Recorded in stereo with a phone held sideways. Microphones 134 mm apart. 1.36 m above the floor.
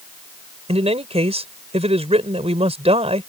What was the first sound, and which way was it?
A man speaking, 50° right (ahead or behind).